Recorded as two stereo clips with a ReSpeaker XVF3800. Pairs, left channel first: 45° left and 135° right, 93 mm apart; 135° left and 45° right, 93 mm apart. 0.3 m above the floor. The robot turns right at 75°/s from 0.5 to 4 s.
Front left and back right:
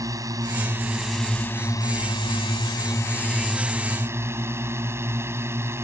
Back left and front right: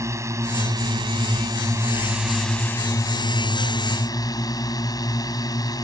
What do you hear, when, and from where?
0.0 s a drone: 95° right; by 5.8 s 170° left